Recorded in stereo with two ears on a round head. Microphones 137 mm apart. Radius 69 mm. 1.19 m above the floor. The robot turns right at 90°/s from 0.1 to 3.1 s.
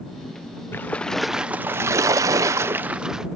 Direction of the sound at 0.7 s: 15° left (ahead or behind).